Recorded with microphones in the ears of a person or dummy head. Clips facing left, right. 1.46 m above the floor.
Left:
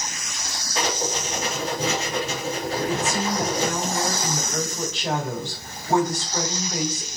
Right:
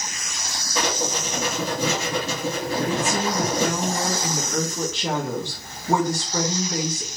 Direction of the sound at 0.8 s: 80° right.